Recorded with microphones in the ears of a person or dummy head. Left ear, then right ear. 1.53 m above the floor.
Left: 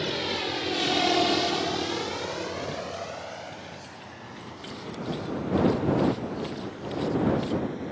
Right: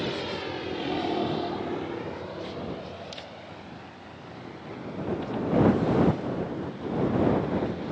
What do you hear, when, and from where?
0.0 s a vehicle: 15° left (ahead or behind); by 7.9 s 35° left (ahead or behind)